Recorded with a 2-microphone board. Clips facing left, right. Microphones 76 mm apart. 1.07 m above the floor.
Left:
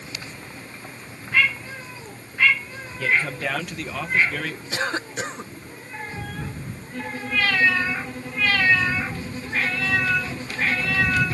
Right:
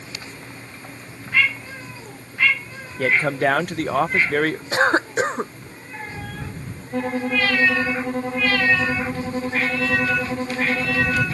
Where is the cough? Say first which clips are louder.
Right 8 dB; 40° right (ahead or behind).